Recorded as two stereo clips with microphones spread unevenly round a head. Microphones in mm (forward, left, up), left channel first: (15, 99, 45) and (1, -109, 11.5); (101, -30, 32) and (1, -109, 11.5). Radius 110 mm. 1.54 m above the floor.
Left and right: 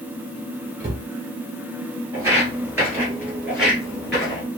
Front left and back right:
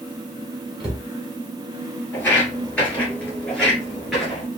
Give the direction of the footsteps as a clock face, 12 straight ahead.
1 o'clock.